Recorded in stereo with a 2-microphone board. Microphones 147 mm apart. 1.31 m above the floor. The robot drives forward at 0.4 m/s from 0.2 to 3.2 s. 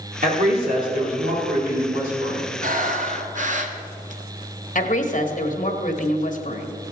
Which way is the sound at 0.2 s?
85° right.